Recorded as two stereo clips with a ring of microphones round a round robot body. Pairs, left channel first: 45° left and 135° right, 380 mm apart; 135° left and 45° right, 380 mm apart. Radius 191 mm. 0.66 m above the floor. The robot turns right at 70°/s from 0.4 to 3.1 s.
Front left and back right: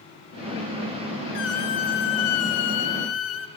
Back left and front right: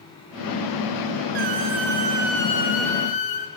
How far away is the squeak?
About 3 m.